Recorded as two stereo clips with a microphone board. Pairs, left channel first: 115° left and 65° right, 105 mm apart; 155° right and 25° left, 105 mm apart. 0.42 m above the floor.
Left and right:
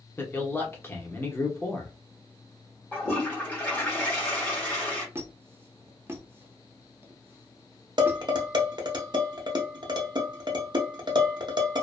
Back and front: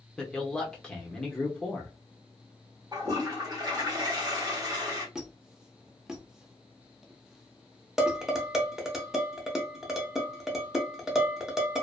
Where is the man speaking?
130° left, 0.8 m.